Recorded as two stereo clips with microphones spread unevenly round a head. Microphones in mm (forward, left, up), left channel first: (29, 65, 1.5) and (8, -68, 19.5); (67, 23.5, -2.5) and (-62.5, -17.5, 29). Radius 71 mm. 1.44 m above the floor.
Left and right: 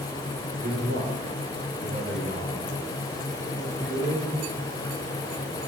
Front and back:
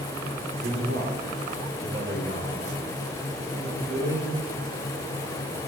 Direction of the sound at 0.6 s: 135° right.